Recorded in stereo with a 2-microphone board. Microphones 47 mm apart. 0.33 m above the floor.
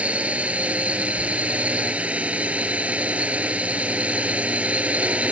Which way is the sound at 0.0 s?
30° right (ahead or behind).